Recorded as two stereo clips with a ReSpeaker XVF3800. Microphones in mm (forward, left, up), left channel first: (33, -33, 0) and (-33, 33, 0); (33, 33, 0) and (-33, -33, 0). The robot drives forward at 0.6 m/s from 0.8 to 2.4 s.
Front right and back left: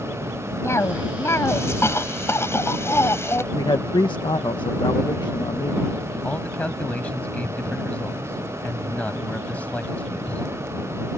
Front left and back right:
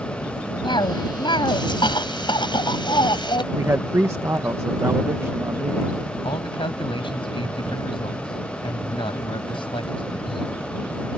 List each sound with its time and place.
0.6 s a cough: 15° left
3.5 s a man speaking: 75° right
6.2 s a man speaking: 30° left